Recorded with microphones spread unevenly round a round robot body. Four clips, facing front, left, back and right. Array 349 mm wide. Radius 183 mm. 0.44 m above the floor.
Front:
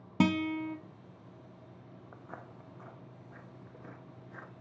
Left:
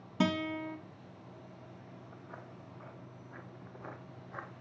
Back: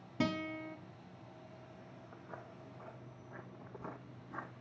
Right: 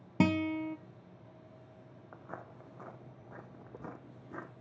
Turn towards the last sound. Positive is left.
turn(degrees=-105)